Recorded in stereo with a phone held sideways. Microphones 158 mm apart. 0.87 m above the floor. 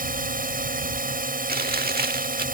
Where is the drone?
65° right (ahead or behind).